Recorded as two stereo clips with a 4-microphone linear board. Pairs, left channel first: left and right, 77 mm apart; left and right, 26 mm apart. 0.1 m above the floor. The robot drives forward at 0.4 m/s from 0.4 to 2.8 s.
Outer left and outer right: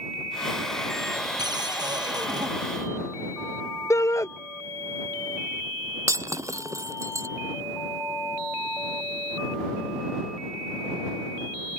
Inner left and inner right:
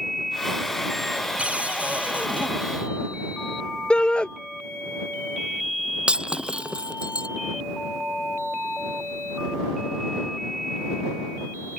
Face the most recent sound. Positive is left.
turn(degrees=-40)  # may be behind; listen again after turning